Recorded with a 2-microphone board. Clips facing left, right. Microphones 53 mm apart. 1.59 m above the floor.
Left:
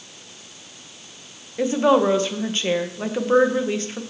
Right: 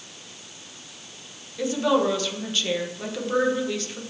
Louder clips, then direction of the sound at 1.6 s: Left 5 dB; 30° left (ahead or behind).